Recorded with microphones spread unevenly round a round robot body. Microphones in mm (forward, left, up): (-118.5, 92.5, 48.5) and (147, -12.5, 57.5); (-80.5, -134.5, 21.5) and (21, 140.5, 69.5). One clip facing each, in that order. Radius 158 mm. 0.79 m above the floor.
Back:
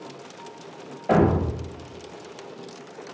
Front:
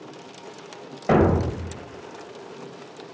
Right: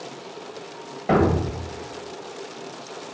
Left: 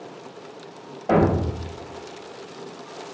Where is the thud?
55° right, 0.8 m.